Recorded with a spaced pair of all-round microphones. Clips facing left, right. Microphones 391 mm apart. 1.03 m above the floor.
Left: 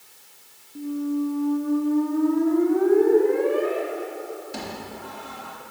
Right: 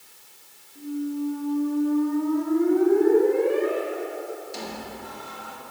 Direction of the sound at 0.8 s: 80° left.